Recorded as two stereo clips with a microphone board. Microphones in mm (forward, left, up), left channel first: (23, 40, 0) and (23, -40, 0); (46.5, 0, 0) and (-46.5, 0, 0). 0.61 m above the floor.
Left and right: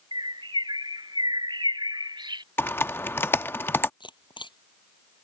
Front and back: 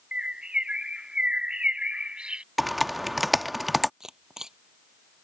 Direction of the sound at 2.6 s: 90° left.